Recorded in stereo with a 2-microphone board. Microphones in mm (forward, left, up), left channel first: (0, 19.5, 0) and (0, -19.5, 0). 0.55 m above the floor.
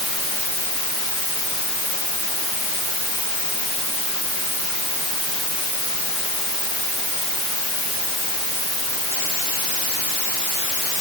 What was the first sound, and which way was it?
Only background noise.